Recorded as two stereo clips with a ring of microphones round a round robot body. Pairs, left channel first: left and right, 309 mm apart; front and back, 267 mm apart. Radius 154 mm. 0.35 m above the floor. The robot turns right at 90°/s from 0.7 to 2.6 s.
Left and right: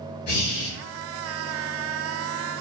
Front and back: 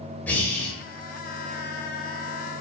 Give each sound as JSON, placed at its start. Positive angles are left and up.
{"t": 0.3, "sound": "breathing", "azimuth_deg": 80, "distance_m": 0.7}